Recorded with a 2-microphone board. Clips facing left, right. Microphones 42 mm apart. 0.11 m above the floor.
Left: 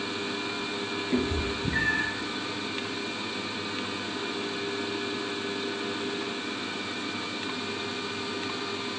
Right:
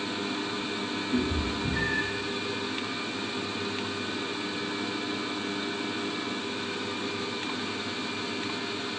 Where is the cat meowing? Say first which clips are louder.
Left 1 dB; 55° left (ahead or behind), 1.2 m.